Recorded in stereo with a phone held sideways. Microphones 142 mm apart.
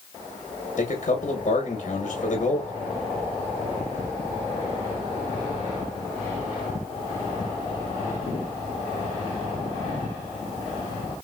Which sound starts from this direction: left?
A man speaking, at 0.8 s.